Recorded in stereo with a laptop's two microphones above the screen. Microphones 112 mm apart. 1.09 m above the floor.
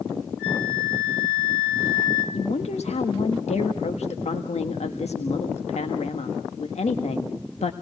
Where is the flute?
5° left (ahead or behind), 7.5 m.